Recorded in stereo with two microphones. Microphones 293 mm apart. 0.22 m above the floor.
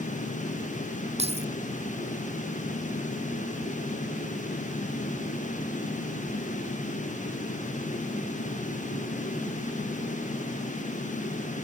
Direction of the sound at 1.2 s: 20° right (ahead or behind).